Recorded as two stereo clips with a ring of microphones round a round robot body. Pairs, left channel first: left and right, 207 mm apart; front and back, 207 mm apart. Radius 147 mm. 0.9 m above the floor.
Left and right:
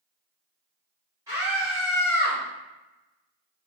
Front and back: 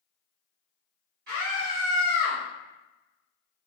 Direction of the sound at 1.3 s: 160° right.